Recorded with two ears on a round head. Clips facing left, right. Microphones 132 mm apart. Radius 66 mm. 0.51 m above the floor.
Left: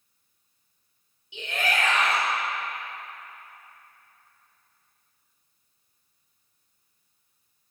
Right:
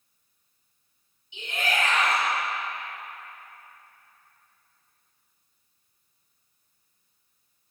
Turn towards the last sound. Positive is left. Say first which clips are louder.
# left 1 dB
turn(degrees=45)  # may be behind; listen again after turning